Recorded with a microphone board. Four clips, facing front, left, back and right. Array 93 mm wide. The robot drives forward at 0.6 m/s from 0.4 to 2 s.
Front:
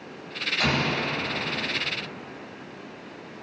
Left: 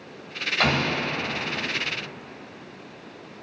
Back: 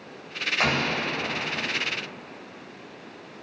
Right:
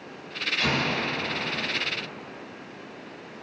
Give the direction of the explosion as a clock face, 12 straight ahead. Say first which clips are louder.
Left 3 dB, even; 8 o'clock.